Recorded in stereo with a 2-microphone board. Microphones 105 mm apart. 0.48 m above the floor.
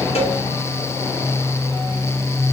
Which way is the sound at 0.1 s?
80° left.